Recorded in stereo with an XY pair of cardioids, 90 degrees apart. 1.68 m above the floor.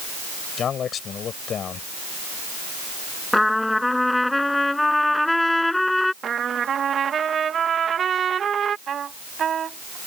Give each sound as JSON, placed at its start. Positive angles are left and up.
{"t": 0.6, "sound": "a man speaking", "azimuth_deg": 65}
{"t": 3.3, "sound": "a trumpet", "azimuth_deg": 15}
{"t": 6.2, "sound": "a trumpet", "azimuth_deg": -55}
{"t": 8.9, "sound": "a trumpet", "azimuth_deg": -55}